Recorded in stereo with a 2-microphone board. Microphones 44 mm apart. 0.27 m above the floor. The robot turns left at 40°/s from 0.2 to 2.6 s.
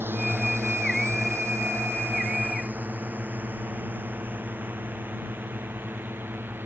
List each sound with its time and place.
0.0 s a drone: 55° right (ahead or behind)